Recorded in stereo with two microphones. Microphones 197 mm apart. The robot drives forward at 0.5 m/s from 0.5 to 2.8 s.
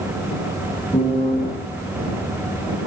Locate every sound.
0.9 s a piano: 30° left (ahead or behind), 8.5 m